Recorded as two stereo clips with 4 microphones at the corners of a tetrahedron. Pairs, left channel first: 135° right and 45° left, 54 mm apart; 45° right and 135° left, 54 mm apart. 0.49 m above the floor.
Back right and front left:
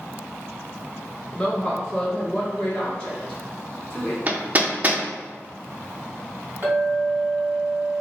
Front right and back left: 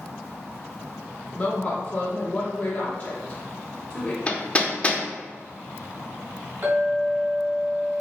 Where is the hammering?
5° left, 0.6 m.